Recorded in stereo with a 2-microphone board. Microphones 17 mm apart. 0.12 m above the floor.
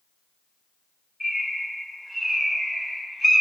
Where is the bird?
20° left (ahead or behind), 1.8 m.